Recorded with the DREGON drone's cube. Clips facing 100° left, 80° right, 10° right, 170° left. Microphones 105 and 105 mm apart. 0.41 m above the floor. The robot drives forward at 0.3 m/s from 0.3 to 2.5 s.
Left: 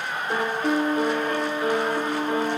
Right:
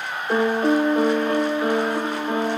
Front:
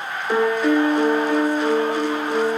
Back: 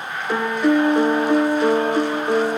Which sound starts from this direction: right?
A piano, at 0.3 s.